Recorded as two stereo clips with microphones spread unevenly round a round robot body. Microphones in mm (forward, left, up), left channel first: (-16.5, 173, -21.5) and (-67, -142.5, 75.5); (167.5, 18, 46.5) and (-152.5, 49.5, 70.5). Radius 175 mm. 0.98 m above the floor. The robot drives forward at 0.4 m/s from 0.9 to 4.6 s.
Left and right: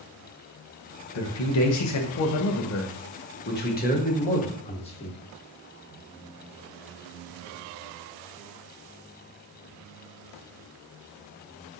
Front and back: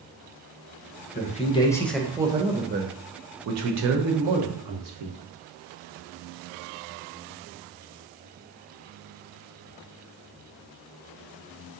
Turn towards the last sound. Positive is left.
turn(degrees=145)